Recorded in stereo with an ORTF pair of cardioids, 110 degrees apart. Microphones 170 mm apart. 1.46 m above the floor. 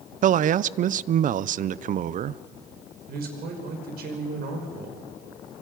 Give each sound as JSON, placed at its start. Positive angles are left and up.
{"t": 0.2, "sound": "a man speaking", "azimuth_deg": -50, "distance_m": 0.6}
{"t": 3.1, "sound": "a man speaking", "azimuth_deg": -65, "distance_m": 5.0}